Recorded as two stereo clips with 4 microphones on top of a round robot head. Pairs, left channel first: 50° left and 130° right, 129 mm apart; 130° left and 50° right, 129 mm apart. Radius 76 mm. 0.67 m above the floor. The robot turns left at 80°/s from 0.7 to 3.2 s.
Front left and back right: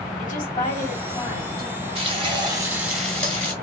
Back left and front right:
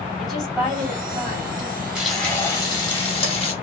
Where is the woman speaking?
40° left, 2 m; by 1.9 s 55° right, 2 m.